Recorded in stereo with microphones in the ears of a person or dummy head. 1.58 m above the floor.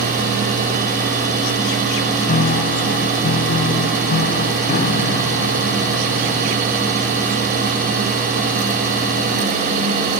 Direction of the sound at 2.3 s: 50° left (ahead or behind).